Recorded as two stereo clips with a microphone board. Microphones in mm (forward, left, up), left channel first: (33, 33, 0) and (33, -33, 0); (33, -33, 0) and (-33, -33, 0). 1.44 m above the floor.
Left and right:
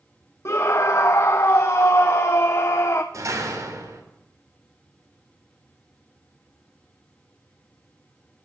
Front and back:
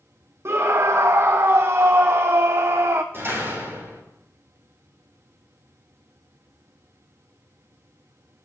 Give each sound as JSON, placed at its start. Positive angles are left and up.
{"t": 0.5, "sound": "a scream", "azimuth_deg": 135, "distance_m": 0.6}
{"t": 3.1, "sound": "a door slam", "azimuth_deg": -125, "distance_m": 3.5}